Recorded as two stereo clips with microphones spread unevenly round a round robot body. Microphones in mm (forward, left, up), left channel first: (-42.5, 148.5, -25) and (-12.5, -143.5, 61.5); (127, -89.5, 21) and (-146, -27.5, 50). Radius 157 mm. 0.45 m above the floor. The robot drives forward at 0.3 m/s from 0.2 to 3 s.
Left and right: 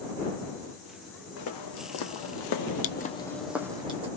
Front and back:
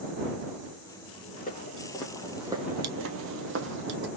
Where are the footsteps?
55° left, 1.4 m; by 4.1 s 145° right, 1.1 m.